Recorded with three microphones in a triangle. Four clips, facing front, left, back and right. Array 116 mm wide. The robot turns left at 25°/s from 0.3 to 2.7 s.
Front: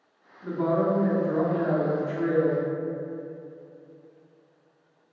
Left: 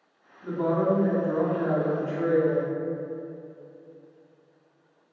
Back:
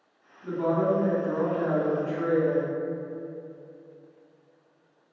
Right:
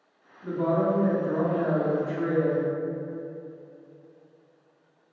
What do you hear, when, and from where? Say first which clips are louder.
0.4 s a woman speaking: even, front 1 dB; 20° left, 0.8 m; by 2.6 s 35° right, 0.8 m